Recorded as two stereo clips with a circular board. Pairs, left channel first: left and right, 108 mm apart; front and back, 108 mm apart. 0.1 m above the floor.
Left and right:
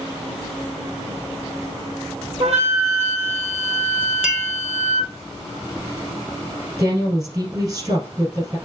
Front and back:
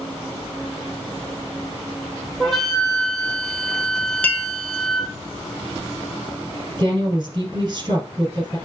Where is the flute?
85° right, 1.8 m.